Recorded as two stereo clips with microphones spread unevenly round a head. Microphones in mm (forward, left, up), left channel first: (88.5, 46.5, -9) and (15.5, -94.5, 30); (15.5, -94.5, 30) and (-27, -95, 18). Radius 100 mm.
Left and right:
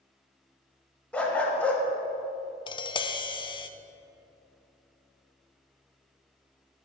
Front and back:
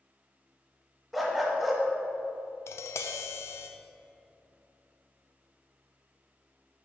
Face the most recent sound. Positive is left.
turn(degrees=0)